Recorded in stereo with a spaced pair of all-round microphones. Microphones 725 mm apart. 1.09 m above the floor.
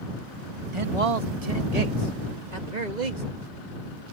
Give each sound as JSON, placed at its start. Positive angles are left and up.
{"t": 0.7, "sound": "a man speaking", "side_deg": -40}